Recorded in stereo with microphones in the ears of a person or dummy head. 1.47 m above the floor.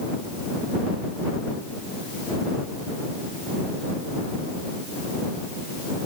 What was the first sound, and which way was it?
Only background noise.